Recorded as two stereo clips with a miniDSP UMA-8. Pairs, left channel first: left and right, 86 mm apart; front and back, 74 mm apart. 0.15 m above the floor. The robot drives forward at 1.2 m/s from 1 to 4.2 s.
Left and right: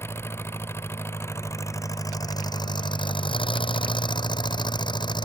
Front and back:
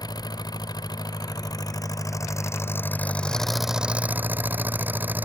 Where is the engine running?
30° left; by 5.2 s 115° left.